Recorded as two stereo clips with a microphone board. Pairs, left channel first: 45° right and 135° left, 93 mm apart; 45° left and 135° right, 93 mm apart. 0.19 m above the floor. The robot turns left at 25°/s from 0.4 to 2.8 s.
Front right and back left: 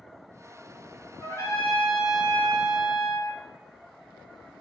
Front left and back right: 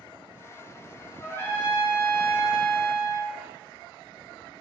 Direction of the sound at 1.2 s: 5° left.